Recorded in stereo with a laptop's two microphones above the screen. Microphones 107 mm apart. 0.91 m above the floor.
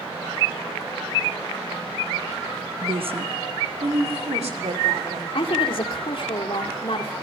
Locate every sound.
2.8 s a woman speaking: 50° right (ahead or behind), 0.9 m; by 5.2 s 80° right, 3.5 m
5.3 s a woman speaking: 55° left (ahead or behind), 2.5 m